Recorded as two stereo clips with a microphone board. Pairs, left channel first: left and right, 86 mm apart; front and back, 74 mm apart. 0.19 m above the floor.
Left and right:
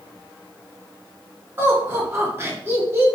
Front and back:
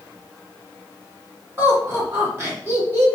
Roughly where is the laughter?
Behind right.